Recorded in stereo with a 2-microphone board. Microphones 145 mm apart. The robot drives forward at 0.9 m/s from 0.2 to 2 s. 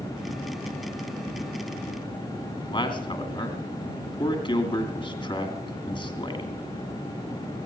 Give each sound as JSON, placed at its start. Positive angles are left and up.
{"t": 2.6, "sound": "a man speaking", "side_deg": 35, "distance_m": 2.5}